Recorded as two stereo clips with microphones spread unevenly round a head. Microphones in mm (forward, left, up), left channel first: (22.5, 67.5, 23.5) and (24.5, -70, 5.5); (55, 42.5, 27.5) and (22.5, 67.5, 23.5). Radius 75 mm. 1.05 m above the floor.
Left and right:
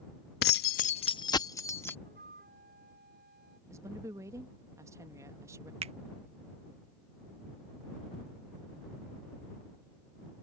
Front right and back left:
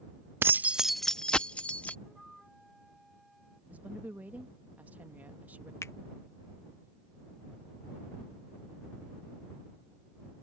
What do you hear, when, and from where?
0.4 s keys jangling: 115° left; by 1.9 s 20° left
2.0 s a flute: 125° right
3.7 s a woman speaking: 155° right
5.8 s a finger snap: 45° right